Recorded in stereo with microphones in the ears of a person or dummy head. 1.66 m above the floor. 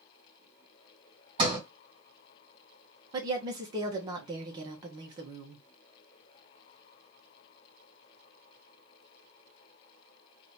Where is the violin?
I don't hear a violin.